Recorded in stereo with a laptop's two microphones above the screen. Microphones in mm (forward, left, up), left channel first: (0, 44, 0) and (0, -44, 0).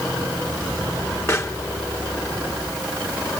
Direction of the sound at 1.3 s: 30° left (ahead or behind).